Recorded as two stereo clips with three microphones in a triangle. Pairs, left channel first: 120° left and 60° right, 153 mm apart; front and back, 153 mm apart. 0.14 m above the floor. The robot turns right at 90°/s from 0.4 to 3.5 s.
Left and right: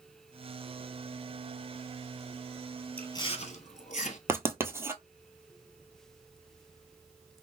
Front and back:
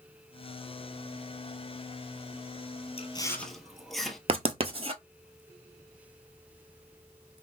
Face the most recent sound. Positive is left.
turn(degrees=-130)